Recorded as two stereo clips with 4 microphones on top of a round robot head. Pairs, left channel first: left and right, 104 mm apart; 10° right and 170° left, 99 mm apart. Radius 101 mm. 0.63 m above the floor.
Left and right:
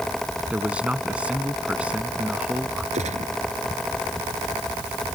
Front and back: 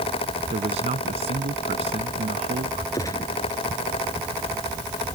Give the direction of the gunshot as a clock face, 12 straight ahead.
2 o'clock.